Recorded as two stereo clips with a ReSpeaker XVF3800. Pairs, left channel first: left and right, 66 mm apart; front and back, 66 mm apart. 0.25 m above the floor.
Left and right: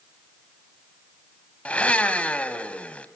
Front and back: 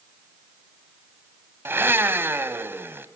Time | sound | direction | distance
1.6 | a blender | 150° left | 1.5 m